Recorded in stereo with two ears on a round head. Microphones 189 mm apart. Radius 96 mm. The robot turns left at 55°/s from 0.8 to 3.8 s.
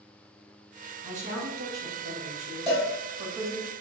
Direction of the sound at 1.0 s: 30° right.